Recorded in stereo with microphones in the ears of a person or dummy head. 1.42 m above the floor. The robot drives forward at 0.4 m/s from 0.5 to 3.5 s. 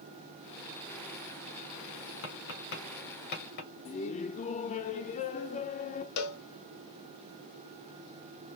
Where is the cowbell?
65° left (ahead or behind), 0.8 m.